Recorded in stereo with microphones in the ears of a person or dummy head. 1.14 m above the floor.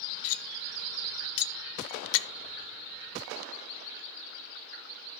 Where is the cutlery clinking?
70° left (ahead or behind), 0.6 m.